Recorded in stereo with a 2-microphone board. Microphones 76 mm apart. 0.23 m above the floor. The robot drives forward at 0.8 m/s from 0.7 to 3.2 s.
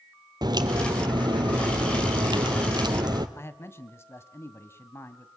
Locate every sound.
0.4 s a crack: 60° right (ahead or behind), 2 m
3.4 s a man speaking: 35° left (ahead or behind), 1.6 m